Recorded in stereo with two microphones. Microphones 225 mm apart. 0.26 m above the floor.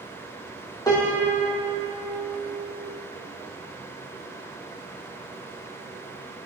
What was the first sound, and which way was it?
A piano, 15° left (ahead or behind).